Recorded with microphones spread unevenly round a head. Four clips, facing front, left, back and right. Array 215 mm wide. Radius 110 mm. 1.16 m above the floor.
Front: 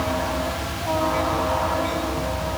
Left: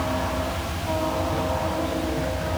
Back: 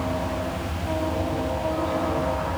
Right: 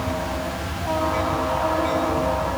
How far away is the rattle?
I don't hear a rattle.